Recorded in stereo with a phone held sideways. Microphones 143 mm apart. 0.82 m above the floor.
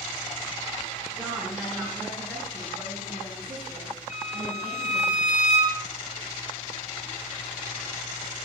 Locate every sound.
1.1 s a woman speaking: 5° right (ahead or behind), 7.5 m; by 5.1 s 45° right (ahead or behind), 10.5 m
4.1 s a violin: 55° left (ahead or behind), 5 m